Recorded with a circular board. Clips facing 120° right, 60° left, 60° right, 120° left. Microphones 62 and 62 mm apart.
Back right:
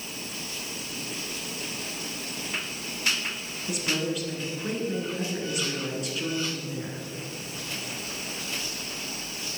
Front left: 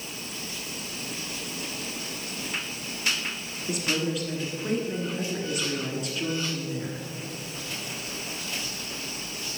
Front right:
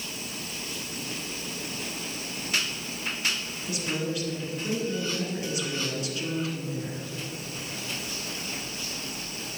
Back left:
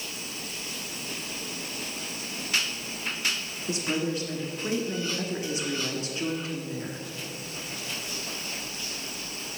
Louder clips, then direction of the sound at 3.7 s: Front left 1 dB, back left 2 dB; 150° left.